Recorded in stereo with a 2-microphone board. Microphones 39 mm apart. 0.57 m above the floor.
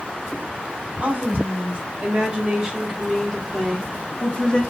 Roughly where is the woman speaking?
Right.